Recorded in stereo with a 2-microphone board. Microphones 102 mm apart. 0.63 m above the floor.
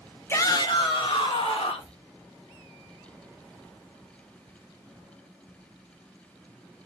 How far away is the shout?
About 0.7 m.